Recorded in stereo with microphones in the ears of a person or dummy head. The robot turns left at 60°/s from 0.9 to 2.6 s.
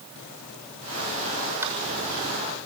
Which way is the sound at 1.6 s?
15° right (ahead or behind).